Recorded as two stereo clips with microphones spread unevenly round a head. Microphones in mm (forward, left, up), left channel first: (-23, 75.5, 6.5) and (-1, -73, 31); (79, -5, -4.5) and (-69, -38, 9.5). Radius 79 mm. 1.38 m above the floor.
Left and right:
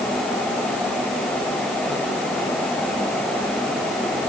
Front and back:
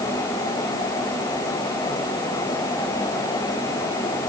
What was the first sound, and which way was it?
Only background noise.